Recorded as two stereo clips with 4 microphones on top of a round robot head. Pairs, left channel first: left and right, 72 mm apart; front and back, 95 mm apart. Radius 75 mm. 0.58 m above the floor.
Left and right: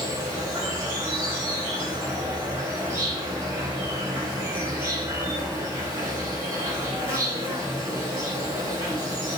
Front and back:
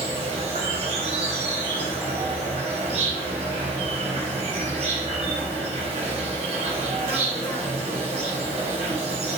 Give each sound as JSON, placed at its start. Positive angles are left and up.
{"t": 0.0, "sound": "an insect", "azimuth_deg": -155, "distance_m": 4.5}